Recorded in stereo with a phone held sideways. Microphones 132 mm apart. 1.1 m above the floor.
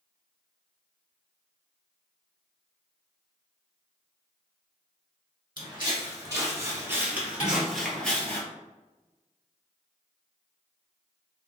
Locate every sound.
5.6 s footsteps: 35° right (ahead or behind), 1.7 m; by 8.4 s 15° left (ahead or behind), 1.1 m
7.4 s dishes clattering: 70° left (ahead or behind), 1.6 m